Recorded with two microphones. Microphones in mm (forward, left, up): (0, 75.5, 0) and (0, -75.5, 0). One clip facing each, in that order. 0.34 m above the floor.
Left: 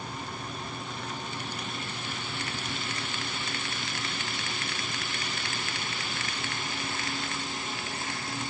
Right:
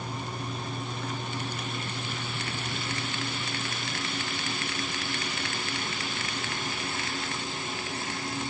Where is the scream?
No scream in this recording.